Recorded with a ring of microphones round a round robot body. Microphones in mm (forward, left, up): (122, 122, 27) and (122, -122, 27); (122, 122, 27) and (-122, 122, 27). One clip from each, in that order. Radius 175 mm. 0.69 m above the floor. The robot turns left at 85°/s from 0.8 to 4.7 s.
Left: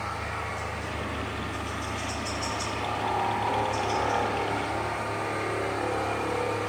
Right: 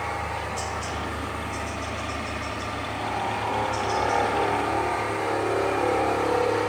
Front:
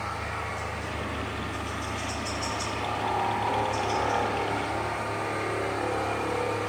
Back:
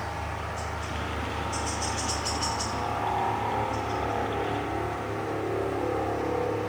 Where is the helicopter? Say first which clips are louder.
Right 3 dB, front 1 dB; 95° right; by 6.7 s 70° right.